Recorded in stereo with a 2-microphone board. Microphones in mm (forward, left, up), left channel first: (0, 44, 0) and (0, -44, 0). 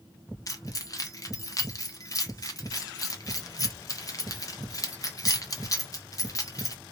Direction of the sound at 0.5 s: 40° left (ahead or behind).